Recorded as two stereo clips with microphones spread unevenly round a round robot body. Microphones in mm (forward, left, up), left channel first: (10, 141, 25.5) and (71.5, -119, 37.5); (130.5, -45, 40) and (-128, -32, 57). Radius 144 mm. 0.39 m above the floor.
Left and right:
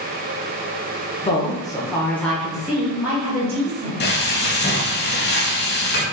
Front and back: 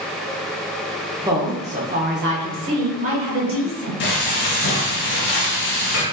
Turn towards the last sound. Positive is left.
turn(degrees=50)